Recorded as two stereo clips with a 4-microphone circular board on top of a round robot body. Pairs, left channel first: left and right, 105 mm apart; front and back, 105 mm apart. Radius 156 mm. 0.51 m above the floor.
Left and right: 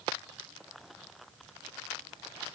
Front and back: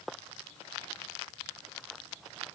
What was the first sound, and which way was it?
Only background noise.